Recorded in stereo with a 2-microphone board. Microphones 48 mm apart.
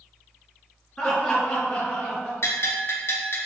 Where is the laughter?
10° left (ahead or behind), 1.4 m; by 2.3 s 30° left (ahead or behind), 1.9 m.